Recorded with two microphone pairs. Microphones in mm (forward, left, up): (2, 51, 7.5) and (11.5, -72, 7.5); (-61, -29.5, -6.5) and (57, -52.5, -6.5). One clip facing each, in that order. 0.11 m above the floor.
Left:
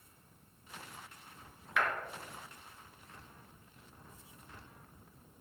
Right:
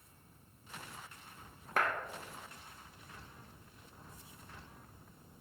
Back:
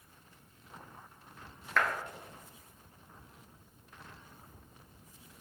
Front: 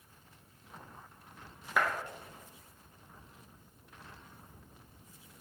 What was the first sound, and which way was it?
A clap, 85° right.